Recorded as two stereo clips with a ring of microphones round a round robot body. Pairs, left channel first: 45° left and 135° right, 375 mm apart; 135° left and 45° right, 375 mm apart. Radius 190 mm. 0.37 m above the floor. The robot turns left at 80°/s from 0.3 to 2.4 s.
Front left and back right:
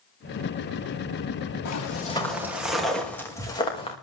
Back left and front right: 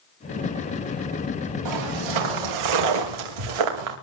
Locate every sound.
1.6 s footsteps: straight ahead, 5.5 m; by 4.0 s 30° right, 5 m